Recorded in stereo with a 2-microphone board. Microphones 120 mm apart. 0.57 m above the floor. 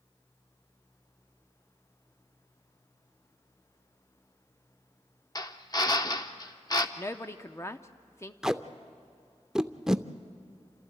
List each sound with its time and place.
5.3 s a drill: 30° left (ahead or behind), 0.8 m
7.0 s a woman speaking: 20° left (ahead or behind), 0.6 m
8.4 s tape being pulled: 5° right (ahead or behind), 0.5 m